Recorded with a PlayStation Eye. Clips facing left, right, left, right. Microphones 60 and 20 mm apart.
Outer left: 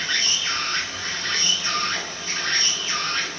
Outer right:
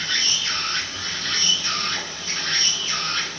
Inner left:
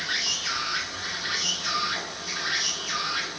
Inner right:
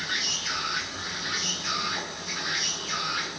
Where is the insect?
25° left (ahead or behind), 1.2 m.